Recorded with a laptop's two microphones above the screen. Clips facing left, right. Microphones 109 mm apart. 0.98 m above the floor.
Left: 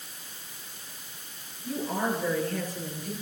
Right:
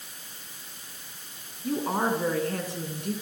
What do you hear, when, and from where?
1.6 s a woman speaking: 75° right (ahead or behind), 9.5 m